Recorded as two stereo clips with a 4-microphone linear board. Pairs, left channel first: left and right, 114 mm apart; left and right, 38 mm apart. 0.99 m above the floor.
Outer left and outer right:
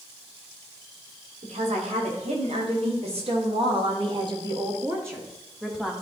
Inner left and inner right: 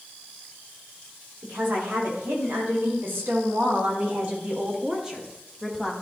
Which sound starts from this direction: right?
A woman speaking, at 1.4 s.